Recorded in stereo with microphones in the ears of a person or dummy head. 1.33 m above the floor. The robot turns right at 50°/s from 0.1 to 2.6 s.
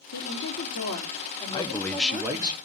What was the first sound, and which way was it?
A woman speaking, 100° left.